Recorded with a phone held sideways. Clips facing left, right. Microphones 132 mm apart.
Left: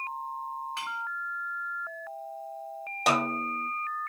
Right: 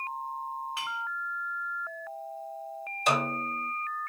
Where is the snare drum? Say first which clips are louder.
Left 1 dB; 70° left (ahead or behind), 1.6 m.